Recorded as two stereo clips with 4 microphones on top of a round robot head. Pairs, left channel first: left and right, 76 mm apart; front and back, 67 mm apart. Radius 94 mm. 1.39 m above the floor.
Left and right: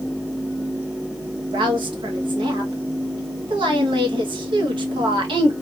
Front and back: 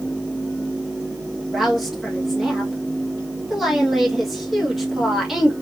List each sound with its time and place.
1.5 s a woman speaking: 90° right, 1.6 m